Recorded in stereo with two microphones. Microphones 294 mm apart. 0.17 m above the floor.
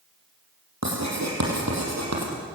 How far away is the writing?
About 6.5 m.